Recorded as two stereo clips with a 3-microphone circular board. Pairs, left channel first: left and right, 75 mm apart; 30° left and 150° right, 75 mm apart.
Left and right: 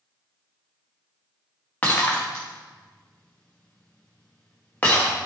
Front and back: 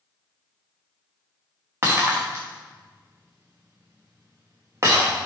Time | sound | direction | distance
1.8 | breaking glass | 160° left | 3.5 m